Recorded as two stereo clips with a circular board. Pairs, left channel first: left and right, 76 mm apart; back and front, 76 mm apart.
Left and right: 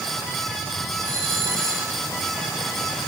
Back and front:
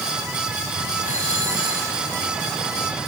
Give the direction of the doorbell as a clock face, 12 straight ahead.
2 o'clock.